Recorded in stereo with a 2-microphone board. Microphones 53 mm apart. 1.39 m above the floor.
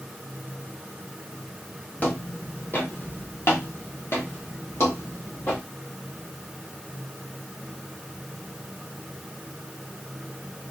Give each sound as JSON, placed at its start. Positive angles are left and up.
{"t": 2.0, "sound": "footsteps", "side_deg": 30, "distance_m": 2.0}